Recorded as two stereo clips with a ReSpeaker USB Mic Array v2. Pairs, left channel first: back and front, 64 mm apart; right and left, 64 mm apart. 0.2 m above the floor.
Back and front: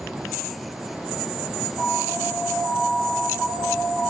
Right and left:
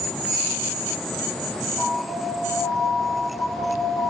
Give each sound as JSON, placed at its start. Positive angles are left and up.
{"t": 1.8, "sound": "an alarm", "azimuth_deg": -60, "distance_m": 8.0}